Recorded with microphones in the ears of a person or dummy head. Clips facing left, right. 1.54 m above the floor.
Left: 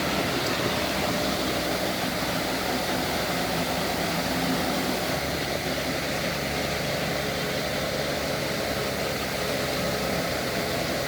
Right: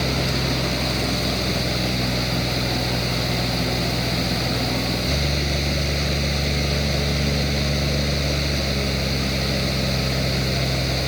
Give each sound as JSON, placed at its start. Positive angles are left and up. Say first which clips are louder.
{"t": 0.0, "sound": "a fan", "louder": "right 2 dB", "side_deg": -50}